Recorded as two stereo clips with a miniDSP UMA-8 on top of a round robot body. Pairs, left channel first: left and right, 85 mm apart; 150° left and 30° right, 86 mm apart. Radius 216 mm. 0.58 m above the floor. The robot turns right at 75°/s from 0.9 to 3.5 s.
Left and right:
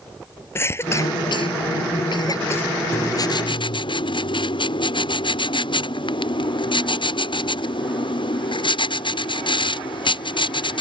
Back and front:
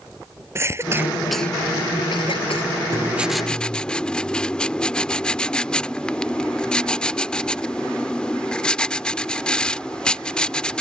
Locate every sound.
0.6 s a cough: 30° left; by 2.7 s 165° left
2.9 s writing: 25° left; by 10.8 s 70° left